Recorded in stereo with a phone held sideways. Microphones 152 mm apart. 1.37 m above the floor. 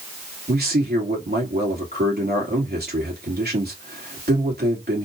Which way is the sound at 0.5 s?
85° right.